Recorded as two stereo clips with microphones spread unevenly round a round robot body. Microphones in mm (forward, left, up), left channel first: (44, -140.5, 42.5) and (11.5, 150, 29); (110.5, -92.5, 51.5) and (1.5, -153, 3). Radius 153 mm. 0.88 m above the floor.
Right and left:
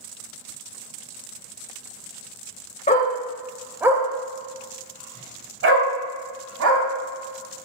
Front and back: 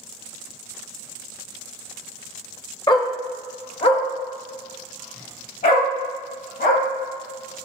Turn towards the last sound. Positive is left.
turn(degrees=55)